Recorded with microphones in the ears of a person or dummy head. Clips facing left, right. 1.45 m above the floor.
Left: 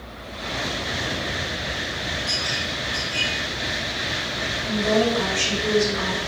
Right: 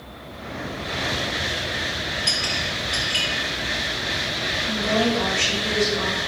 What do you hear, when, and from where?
2.3 s a clink: 20° right (ahead or behind), 0.7 m
4.6 s a woman speaking: 70° left (ahead or behind), 2.5 m